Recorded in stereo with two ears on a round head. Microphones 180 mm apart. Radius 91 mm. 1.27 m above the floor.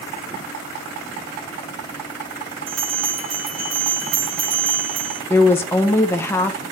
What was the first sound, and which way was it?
A bell, 80° right.